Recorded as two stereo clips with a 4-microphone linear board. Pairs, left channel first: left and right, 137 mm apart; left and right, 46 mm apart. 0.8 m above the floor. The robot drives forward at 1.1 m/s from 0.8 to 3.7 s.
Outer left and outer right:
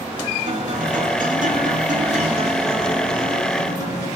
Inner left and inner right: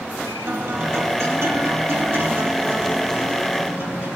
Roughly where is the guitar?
Right.